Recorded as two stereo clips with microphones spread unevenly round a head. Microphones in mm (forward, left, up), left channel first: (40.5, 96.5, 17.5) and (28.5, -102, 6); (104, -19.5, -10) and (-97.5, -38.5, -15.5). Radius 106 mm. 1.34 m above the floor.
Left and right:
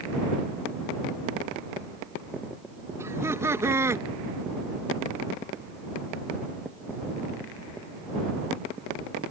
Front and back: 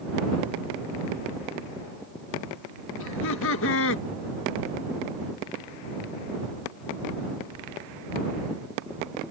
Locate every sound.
3.0 s laughter: 15° right